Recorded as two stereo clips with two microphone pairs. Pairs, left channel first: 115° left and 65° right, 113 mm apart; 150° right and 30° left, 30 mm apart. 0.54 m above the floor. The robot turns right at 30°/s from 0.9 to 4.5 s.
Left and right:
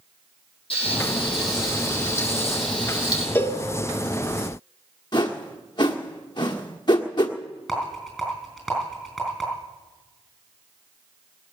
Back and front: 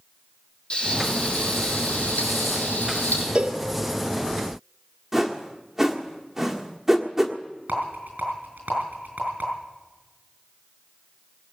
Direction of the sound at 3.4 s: 55° left.